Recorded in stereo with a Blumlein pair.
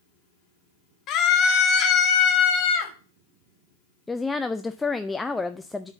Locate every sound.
1.1 s a scream: 30° left, 1.7 m; by 2.9 s 25° left, 3 m
4.1 s a woman speaking: 5° left, 0.5 m